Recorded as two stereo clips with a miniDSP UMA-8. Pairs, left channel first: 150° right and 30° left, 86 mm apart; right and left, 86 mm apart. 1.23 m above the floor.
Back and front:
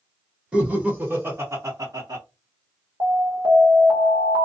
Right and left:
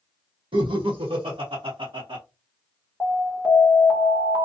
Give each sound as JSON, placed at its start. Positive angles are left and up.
{"t": 0.5, "sound": "laughter", "azimuth_deg": 110, "distance_m": 1.2}
{"t": 3.0, "sound": "an alarm", "azimuth_deg": 5, "distance_m": 1.6}